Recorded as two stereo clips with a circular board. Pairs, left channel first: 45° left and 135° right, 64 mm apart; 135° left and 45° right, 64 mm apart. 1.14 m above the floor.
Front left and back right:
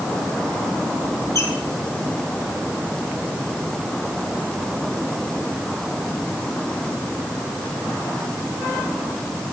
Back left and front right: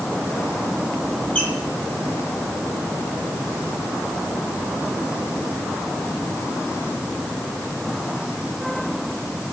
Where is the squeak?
65° left, 1.6 m.